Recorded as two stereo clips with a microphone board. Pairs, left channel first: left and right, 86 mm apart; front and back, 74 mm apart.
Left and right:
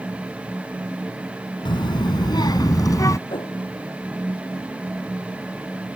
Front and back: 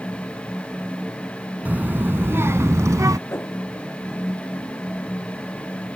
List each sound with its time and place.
1.6 s a child speaking: 115° left; by 3.2 s 140° left
3.3 s a whoosh: 60° left